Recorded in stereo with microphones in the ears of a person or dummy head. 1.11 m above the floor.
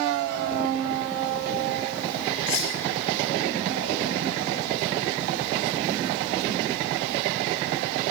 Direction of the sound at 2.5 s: 75° left (ahead or behind).